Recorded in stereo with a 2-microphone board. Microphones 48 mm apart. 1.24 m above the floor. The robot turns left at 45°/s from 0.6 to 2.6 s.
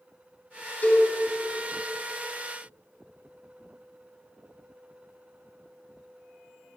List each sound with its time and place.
0.8 s a cowbell: 40° left (ahead or behind), 3.5 m; by 1.1 s 50° left (ahead or behind), 3.5 m